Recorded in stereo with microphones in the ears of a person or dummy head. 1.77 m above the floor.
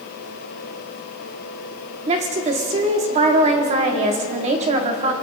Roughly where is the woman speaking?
Right.